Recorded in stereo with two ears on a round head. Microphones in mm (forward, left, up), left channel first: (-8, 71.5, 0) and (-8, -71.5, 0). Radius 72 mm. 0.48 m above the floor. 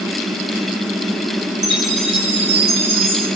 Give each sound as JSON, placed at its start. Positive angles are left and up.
{"t": 1.6, "sound": "a chime", "side_deg": -80, "distance_m": 10.0}